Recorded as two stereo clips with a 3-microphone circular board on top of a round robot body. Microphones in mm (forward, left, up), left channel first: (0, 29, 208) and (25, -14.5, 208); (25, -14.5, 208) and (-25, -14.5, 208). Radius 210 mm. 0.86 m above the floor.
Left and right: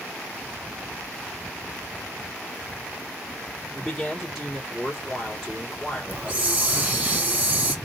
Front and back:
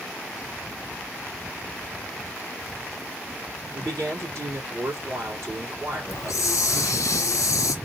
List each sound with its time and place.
3.7 s a man speaking: 150° right, 2.5 m
6.1 s a hiss: 5° left, 0.5 m